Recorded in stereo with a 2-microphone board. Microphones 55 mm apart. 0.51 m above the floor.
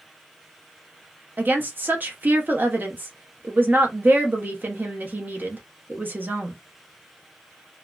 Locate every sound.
1.4 s a woman speaking: 35° right (ahead or behind), 0.8 m